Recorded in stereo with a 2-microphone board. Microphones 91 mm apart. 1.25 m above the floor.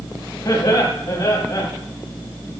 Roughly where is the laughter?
Left.